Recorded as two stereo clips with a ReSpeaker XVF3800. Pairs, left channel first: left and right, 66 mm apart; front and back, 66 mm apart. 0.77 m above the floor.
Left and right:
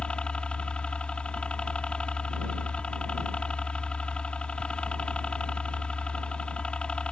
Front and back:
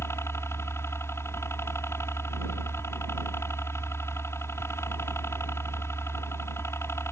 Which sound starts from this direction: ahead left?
A helicopter, at 0.0 s.